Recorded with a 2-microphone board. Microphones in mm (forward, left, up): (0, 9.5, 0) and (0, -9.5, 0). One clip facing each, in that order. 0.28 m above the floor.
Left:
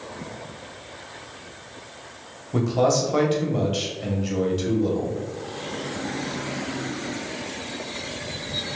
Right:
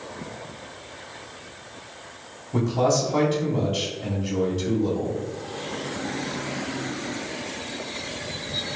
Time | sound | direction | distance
2.5 | a man speaking | 25° left (ahead or behind) | 1.2 m